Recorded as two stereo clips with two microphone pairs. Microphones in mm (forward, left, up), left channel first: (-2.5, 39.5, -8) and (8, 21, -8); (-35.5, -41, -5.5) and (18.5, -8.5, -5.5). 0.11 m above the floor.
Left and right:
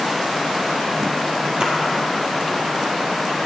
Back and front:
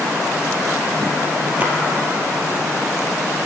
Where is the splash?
30° right, 1.8 m.